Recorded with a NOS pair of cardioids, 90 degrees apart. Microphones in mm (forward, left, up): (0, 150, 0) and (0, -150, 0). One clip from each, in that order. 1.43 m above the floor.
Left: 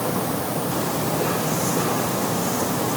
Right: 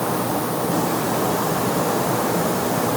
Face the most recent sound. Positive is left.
No sound to turn to.